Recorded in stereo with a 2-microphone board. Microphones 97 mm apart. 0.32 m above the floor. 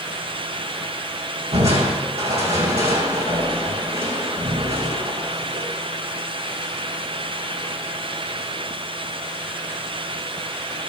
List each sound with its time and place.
1.5 s crushing: 75° right (ahead or behind), 4.5 m